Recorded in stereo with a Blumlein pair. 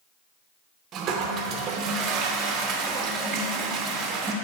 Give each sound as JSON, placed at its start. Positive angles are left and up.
{"t": 0.9, "sound": "a toilet flushing", "azimuth_deg": -30, "distance_m": 0.5}